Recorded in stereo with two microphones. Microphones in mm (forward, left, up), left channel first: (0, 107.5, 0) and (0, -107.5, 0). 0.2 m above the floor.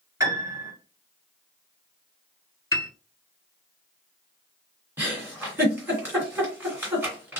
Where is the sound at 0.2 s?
15° right (ahead or behind), 2.5 m.